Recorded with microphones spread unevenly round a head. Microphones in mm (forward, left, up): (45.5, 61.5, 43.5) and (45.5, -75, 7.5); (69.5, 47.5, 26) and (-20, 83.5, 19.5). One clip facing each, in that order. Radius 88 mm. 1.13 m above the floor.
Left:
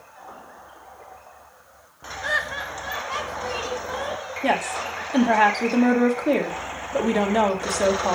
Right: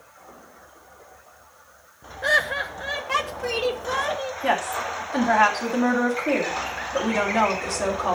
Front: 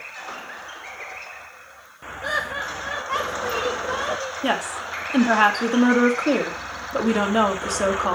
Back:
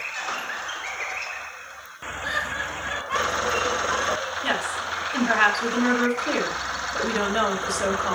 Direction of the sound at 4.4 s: 30° left.